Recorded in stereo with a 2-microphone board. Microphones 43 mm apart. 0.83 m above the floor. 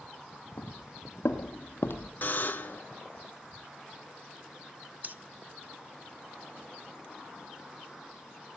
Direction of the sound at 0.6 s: 60° left (ahead or behind).